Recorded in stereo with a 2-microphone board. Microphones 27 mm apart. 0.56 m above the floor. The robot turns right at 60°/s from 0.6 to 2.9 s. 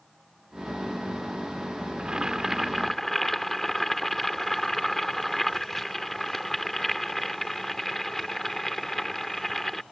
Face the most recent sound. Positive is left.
turn(degrees=10)